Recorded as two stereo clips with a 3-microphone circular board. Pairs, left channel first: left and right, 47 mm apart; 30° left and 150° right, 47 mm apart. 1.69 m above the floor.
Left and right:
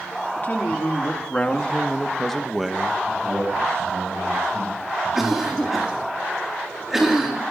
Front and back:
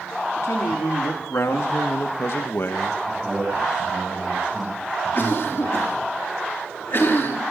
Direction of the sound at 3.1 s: 70° right.